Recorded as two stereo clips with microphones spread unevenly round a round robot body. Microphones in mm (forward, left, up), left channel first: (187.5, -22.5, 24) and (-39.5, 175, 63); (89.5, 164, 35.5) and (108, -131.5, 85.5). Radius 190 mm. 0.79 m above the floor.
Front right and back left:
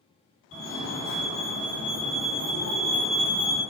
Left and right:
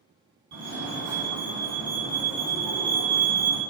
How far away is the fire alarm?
About 2.5 m.